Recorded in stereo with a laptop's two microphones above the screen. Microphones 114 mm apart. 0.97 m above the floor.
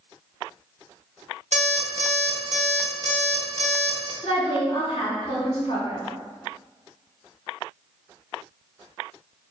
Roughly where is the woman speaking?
Left.